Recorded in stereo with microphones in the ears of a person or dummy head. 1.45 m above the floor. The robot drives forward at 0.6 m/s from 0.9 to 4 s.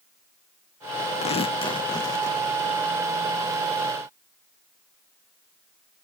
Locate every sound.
1.2 s tearing paper: 35° left (ahead or behind), 0.6 m; by 2.5 s 15° left (ahead or behind), 1.2 m